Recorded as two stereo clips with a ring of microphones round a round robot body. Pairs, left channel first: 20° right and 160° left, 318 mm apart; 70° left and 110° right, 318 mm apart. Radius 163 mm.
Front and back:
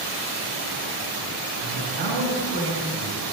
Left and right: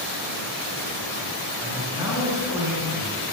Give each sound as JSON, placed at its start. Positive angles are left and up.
{"t": 1.6, "sound": "a man speaking", "azimuth_deg": 165, "distance_m": 4.0}